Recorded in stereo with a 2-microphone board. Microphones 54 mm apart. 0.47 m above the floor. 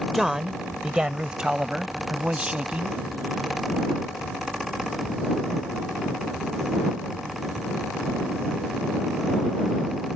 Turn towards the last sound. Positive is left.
turn(degrees=-25)  # may be behind; listen again after turning